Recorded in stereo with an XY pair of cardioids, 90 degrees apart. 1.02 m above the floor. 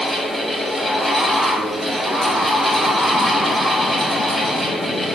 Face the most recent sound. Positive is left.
turn(degrees=0)